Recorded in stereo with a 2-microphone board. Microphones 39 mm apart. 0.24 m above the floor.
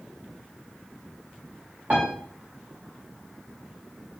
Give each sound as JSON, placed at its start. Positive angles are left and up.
{"t": 1.9, "sound": "a piano", "side_deg": -45, "distance_m": 5.5}